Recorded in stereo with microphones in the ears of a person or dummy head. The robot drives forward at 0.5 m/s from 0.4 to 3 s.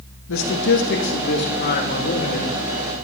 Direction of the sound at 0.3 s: 65° left (ahead or behind).